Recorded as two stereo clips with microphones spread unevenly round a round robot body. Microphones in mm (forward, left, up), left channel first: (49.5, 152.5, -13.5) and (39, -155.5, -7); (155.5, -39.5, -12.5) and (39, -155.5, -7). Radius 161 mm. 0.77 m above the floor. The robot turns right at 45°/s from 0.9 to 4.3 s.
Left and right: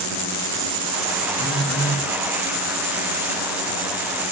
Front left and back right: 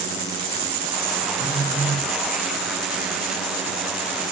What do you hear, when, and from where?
1.4 s a phone buzzing: 25° left, 6 m; by 2.0 s 55° left, 6 m